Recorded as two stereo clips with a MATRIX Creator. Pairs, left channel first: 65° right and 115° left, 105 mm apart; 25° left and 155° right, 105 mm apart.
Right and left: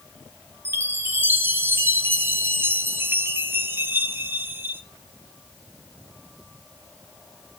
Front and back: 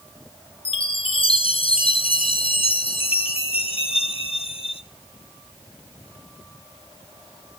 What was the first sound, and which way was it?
A chime, 45° left.